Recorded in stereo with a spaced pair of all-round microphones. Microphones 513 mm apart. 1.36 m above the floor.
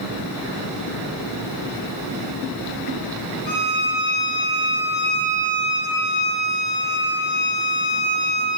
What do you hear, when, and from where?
3.5 s a violin: 55° left (ahead or behind), 1.3 m